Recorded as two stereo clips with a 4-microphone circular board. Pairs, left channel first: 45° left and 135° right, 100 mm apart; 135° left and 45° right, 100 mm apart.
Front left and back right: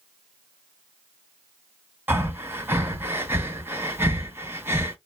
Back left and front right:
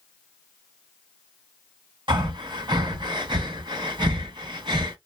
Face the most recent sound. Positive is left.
turn(degrees=-70)